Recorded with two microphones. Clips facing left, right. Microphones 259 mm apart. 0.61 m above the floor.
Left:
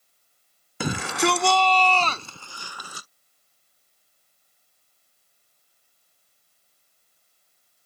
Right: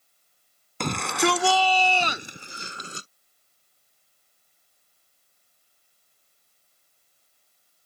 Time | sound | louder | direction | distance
0.8 | a shout | even | 5° left (ahead or behind) | ?